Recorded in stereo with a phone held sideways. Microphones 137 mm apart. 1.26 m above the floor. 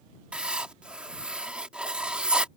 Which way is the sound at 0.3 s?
5° right (ahead or behind).